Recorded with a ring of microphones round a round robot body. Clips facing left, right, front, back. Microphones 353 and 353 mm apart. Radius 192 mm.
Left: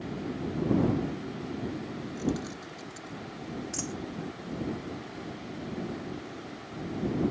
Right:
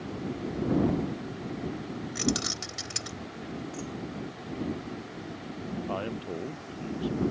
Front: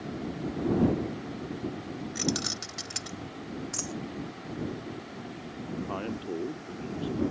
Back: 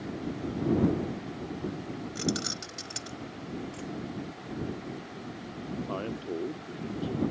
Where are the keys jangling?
75° right.